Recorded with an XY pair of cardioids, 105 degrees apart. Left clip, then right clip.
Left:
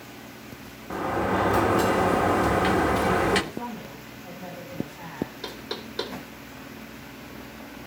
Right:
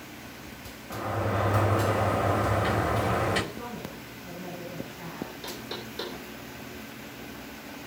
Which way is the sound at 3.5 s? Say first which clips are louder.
Left 2 dB; 70° left.